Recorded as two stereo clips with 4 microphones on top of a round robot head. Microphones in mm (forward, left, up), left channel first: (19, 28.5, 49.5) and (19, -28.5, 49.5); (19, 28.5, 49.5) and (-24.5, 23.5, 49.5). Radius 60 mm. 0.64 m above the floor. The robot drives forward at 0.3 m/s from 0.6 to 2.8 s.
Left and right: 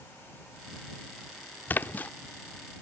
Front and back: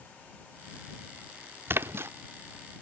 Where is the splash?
150° left; by 2.1 s 155° left.